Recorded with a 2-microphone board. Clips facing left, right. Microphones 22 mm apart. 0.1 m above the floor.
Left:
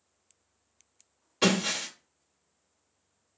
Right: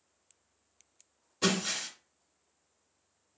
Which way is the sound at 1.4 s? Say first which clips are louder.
Left 4 dB; 70° left (ahead or behind).